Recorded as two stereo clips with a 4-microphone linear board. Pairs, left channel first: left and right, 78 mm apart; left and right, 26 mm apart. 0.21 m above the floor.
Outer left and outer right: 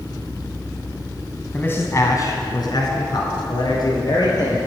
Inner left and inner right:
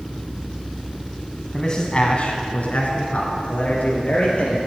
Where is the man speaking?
20° left (ahead or behind), 1.2 m; by 4.6 s 60° left (ahead or behind), 4.5 m.